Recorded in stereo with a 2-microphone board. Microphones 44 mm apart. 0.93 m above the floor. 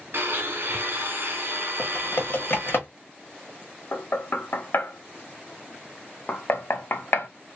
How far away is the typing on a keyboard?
About 1.3 m.